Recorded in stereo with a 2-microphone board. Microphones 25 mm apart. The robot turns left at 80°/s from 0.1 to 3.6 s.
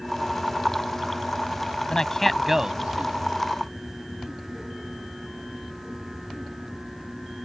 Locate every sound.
1.9 s a man speaking: 35° left (ahead or behind); by 3.3 s 65° right (ahead or behind)